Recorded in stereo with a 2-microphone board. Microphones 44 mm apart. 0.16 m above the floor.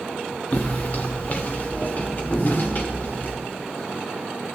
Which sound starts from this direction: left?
Footsteps, at 0.5 s.